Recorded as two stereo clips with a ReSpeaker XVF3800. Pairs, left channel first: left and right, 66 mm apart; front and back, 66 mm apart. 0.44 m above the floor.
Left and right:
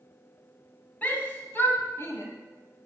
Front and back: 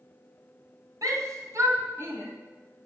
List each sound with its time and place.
1.0 s a shout: 155° left, 3 m; by 2.2 s 130° left, 2.5 m